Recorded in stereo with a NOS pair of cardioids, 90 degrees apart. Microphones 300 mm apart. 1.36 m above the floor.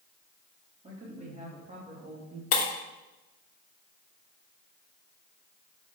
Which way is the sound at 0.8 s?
20° right.